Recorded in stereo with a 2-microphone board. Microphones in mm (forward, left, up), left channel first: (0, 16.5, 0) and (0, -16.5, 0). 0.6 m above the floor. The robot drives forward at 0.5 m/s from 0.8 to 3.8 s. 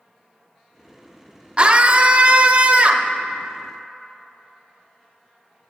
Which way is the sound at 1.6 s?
35° right (ahead or behind).